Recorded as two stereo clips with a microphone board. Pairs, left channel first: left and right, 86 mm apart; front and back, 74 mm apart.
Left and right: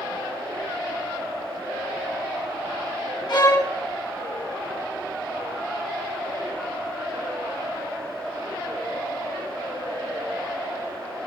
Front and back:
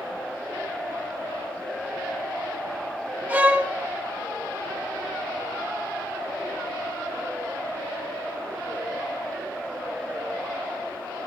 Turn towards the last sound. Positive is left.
turn(degrees=115)